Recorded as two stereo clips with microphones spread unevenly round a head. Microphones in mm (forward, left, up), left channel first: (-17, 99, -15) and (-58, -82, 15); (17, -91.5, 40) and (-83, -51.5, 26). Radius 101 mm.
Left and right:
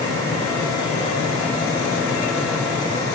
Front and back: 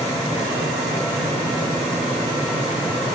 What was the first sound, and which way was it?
Only background noise.